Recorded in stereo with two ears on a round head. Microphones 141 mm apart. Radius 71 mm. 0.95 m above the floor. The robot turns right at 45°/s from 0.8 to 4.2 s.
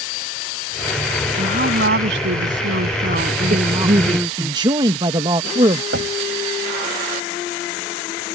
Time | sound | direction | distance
1.4 | a woman speaking | 130° right | ?
3.5 | a man speaking | 60° right | ?
5.9 | knocking | 85° right | ?